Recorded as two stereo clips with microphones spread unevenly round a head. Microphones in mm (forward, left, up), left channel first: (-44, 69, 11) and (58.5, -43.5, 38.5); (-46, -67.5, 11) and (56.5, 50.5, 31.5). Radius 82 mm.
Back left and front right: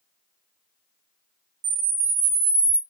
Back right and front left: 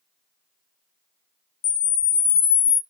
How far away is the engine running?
No engine running in this recording.